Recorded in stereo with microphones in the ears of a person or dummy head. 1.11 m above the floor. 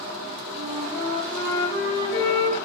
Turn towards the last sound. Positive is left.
turn(degrees=60)  # may be behind; listen again after turning